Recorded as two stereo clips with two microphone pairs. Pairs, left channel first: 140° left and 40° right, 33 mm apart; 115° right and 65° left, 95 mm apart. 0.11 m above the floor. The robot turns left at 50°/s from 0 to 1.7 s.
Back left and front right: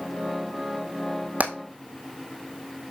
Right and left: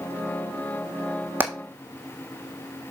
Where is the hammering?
5° right, 1.9 m; by 1.5 s 10° right, 1.9 m.